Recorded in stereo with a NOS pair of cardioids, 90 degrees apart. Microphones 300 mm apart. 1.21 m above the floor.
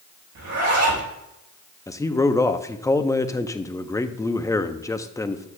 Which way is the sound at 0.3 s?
65° right.